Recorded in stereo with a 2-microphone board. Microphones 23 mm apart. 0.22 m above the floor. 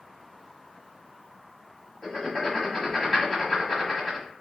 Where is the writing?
25° left (ahead or behind), 1.3 m.